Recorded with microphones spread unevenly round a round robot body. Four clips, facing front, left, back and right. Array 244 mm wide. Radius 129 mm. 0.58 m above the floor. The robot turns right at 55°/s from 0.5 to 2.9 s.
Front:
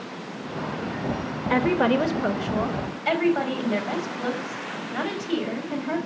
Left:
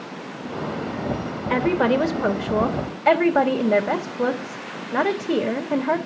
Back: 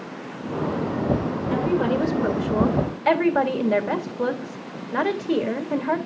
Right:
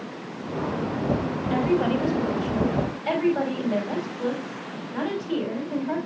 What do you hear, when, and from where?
1.5 s a woman speaking: 40° left, 2.5 m; by 6.0 s 115° left, 2.5 m